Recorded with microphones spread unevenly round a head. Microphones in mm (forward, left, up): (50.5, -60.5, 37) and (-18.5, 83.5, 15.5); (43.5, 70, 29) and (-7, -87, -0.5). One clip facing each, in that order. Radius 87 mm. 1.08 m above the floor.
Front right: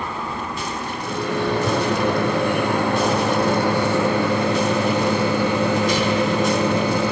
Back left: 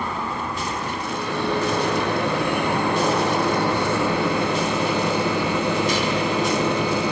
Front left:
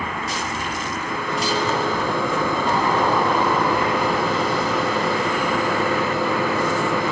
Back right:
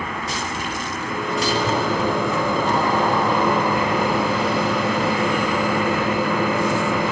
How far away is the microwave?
About 6 m.